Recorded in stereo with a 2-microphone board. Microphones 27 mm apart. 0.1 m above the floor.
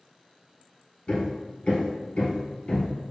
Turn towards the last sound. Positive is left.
turn(degrees=35)  # may be behind; listen again after turning